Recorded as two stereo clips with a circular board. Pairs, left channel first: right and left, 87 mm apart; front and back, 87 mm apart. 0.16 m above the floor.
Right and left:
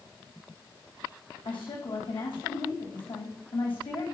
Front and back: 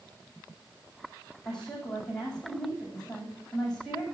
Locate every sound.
1.4 s a woman speaking: 85° right, 8.5 m